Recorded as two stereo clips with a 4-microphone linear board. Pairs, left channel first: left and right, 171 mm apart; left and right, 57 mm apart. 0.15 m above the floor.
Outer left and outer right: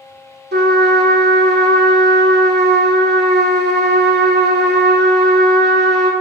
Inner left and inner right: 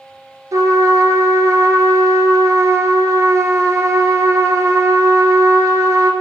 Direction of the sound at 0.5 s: 70° right (ahead or behind).